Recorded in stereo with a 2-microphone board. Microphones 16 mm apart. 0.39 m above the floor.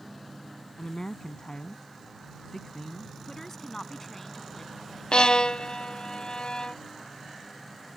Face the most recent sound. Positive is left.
turn(degrees=65)  # may be behind; listen again after turning